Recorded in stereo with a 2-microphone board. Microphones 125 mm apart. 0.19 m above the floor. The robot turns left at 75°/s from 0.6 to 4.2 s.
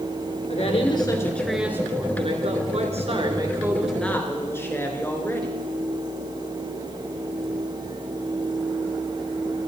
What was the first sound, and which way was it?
A woman speaking, 70° left.